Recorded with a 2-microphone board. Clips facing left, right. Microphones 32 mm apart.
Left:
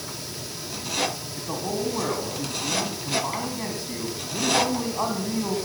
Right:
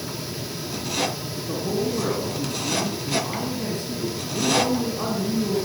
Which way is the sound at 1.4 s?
60° left (ahead or behind).